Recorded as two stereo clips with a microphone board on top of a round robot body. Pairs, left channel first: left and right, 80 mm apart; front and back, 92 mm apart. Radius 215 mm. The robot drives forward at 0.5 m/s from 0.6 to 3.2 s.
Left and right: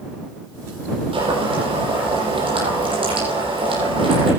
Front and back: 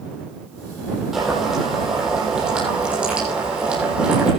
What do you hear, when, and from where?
1.1 s boiling: 95° right, 8.5 m; by 4.3 s 100° right, 8.5 m